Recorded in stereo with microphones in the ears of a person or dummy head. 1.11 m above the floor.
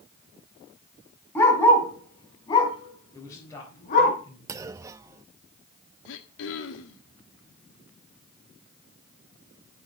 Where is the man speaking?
20° left (ahead or behind), 5 m.